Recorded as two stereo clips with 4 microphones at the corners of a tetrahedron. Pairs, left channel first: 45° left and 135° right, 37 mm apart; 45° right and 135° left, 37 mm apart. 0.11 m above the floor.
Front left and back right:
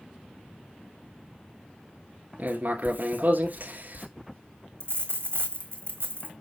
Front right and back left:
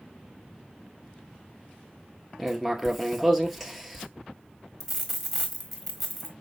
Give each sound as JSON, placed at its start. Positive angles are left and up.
{"t": 2.4, "sound": "writing", "azimuth_deg": -135, "distance_m": 1.2}
{"t": 4.8, "sound": "a dropped coin", "azimuth_deg": -145, "distance_m": 1.5}